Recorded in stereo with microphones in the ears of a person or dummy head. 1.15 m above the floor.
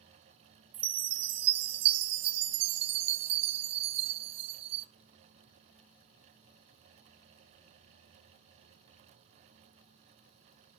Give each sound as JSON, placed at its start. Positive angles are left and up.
{"t": 0.7, "sound": "a chime", "side_deg": -30, "distance_m": 0.6}